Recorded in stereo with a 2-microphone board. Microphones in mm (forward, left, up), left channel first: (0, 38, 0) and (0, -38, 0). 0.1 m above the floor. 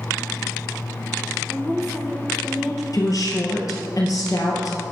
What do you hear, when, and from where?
1.5 s a woman speaking: 5° right (ahead or behind), 2.0 m
2.9 s a woman speaking: 55° left (ahead or behind), 2 m